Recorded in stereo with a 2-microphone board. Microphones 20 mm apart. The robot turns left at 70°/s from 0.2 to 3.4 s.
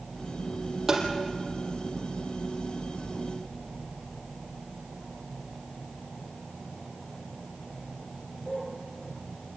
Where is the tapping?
20° right (ahead or behind), 4.5 m; by 1.1 s 30° right (ahead or behind), 4.5 m.